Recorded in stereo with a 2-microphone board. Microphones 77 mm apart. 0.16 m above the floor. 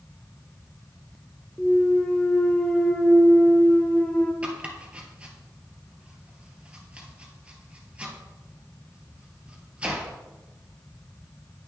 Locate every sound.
1.6 s a clunk: 10° left (ahead or behind), 1.3 m
4.4 s chopping: 15° right (ahead or behind), 2 m